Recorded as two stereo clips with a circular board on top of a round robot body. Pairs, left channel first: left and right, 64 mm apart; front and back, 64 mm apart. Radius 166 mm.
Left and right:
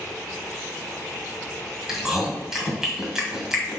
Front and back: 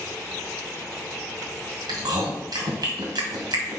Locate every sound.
1.9 s chewing: 175° right, 2 m